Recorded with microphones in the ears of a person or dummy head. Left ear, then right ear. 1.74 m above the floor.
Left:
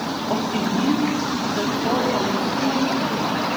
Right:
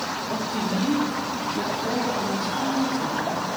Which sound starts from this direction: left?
A woman speaking, at 0.3 s.